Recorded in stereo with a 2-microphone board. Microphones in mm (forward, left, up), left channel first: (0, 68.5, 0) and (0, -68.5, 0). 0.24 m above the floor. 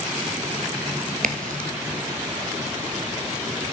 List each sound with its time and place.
1.2 s a crack: 80° right, 0.6 m